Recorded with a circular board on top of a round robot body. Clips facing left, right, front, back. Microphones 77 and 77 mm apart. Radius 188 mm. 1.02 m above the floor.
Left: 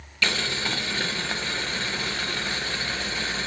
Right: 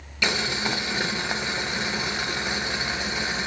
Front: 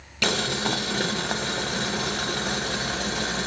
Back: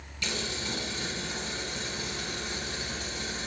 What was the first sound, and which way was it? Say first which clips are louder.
Boiling: right 1 dB, front 9 dB; 15° right.